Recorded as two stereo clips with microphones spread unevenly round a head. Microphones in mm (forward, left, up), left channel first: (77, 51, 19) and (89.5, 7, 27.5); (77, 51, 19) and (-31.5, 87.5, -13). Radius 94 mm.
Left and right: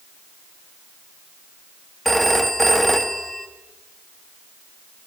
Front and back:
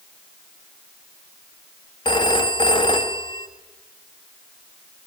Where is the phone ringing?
15° left, 1.7 m.